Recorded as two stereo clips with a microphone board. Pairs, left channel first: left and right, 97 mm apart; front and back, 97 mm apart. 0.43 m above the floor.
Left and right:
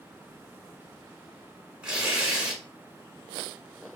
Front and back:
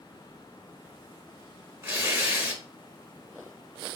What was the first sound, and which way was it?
Tearing paper, 160° right.